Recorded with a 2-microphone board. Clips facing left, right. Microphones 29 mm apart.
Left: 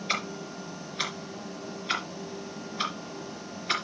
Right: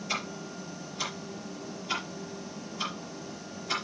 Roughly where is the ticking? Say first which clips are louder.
Left 3 dB; left.